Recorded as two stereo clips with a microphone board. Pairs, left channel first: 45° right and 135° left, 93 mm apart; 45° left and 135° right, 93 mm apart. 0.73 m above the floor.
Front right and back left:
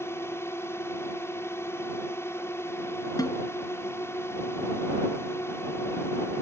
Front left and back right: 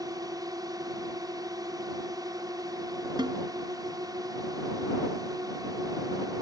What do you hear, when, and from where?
0.0 s a drone: 100° right
3.2 s a snare drum: 95° right